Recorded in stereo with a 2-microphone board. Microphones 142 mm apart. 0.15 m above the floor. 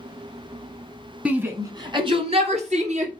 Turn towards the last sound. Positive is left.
turn(degrees=-60)  # may be behind; listen again after turning